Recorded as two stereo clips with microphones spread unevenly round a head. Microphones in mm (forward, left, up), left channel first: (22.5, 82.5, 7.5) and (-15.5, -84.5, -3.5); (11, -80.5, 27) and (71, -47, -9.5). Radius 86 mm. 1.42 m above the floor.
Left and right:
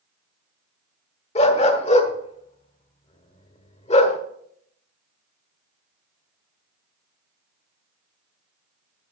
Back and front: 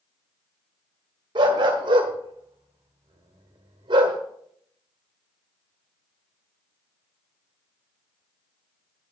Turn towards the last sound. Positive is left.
turn(degrees=55)